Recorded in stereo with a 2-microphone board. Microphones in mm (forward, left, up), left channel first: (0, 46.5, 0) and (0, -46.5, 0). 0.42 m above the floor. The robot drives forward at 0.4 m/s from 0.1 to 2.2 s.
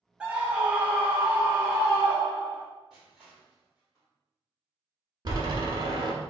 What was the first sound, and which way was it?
A scream, 10° right (ahead or behind).